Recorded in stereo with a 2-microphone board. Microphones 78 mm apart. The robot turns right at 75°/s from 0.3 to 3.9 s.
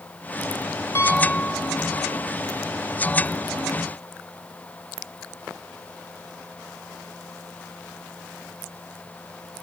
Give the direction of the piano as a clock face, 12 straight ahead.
11 o'clock.